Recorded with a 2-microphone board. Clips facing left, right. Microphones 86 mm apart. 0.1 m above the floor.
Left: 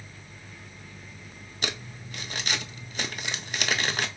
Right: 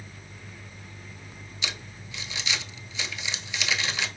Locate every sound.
1.6 s crumpling: 50° left (ahead or behind), 0.5 m